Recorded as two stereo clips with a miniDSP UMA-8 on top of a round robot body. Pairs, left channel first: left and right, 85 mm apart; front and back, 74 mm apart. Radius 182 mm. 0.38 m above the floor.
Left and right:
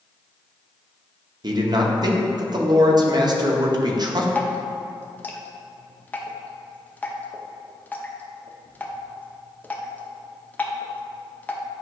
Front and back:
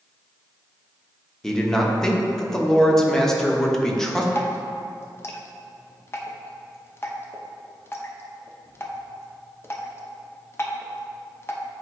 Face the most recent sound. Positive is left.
turn(degrees=30)